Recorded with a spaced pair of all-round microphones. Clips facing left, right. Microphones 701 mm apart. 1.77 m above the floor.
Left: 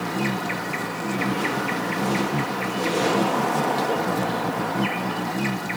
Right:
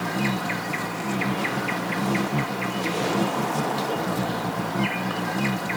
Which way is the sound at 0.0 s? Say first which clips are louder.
Left 1 dB; 5° right (ahead or behind).